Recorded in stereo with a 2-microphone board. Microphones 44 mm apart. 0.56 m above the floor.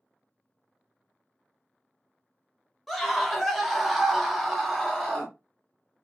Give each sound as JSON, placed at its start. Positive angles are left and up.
{"t": 2.9, "sound": "a scream", "side_deg": 0, "distance_m": 1.0}